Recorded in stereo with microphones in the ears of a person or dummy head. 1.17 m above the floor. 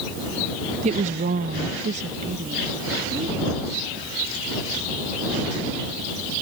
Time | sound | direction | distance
0.8 | a woman speaking | 30° right (ahead or behind) | ?